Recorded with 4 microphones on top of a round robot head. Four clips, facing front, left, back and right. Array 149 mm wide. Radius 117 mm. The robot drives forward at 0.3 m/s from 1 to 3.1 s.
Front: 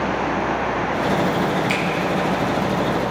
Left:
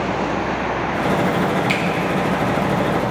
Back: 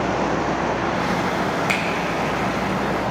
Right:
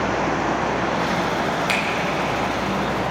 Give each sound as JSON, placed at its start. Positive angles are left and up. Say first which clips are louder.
{"t": 1.7, "sound": "a finger snap", "louder": "left 2 dB, front 1 dB", "azimuth_deg": -155, "distance_m": 2.0}